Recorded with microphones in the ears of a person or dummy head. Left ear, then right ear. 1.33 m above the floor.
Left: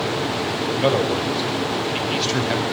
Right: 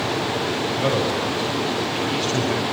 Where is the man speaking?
20° left (ahead or behind), 6.5 m.